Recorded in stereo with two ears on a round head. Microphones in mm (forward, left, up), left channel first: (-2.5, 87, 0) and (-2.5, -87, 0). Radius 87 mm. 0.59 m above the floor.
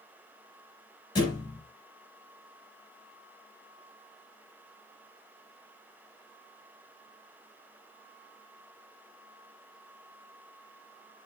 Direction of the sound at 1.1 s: 25° left (ahead or behind).